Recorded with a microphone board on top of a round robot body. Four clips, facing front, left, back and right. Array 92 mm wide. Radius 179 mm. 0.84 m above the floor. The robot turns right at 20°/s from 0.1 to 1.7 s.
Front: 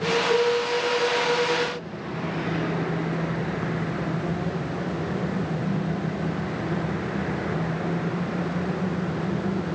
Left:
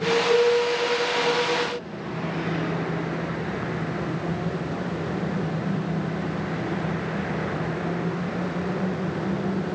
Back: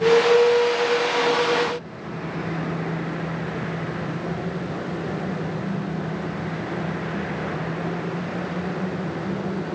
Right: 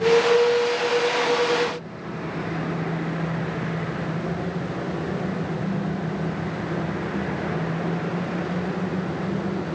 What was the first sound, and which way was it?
Only background noise.